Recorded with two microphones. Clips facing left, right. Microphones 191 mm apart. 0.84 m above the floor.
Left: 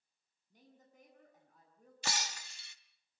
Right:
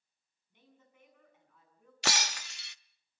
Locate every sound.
0.5 s a woman speaking: 40° left (ahead or behind), 7 m
2.0 s breaking glass: 80° right, 0.6 m